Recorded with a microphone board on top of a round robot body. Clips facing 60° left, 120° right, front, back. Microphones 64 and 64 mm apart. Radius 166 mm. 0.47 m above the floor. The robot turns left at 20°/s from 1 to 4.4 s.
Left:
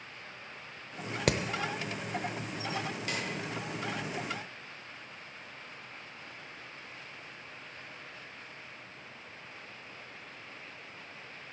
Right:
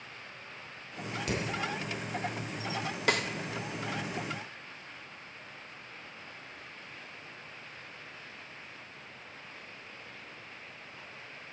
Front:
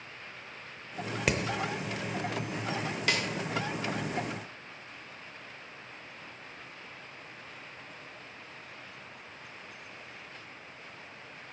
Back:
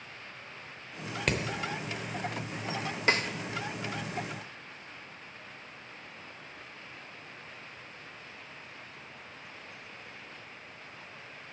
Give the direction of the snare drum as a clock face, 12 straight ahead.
4 o'clock.